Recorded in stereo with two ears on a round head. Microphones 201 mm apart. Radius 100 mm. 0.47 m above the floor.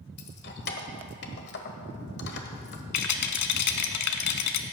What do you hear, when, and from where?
0.2 s keys jangling: 50° left (ahead or behind), 1.3 m
2.9 s a rattle: 80° left, 1.1 m